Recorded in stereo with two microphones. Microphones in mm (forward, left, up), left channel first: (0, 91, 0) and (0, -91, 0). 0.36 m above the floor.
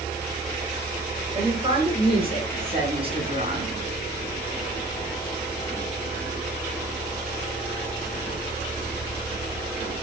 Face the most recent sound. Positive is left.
turn(degrees=-30)  # may be behind; listen again after turning